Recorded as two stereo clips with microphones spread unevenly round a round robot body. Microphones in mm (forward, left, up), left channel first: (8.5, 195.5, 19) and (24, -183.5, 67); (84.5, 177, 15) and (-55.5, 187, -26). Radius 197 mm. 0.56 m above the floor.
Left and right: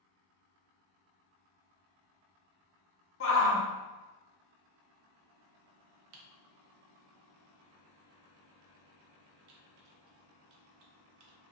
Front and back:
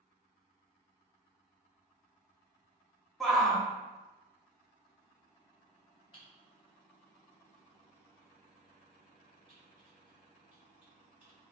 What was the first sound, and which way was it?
A shout, 105° left.